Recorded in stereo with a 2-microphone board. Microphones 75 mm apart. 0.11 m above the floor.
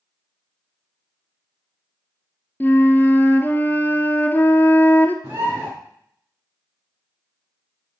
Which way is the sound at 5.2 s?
35° right (ahead or behind).